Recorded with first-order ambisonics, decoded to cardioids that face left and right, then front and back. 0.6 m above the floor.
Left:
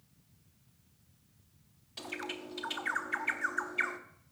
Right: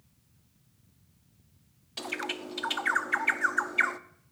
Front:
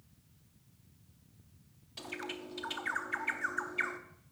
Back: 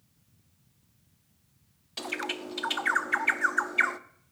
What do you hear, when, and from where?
2.0 s a bird: 145° right, 0.6 m